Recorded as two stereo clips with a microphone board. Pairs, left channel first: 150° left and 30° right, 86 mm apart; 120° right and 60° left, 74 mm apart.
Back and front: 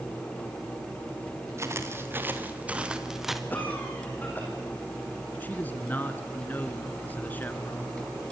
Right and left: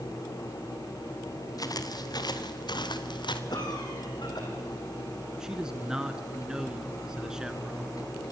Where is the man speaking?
125° left, 1.5 m.